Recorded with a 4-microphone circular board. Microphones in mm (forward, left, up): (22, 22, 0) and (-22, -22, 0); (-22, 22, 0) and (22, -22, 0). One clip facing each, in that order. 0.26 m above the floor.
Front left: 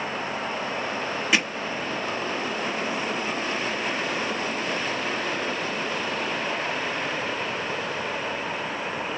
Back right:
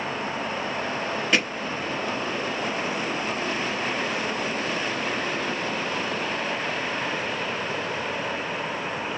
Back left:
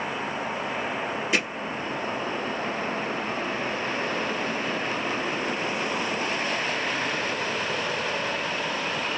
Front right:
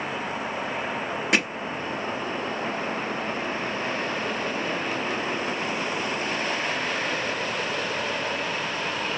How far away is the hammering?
About 1.6 m.